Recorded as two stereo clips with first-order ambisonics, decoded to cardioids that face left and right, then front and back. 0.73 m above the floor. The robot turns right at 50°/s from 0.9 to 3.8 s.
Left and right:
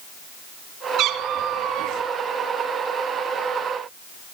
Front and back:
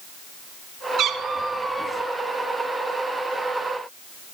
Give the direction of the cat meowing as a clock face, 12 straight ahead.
4 o'clock.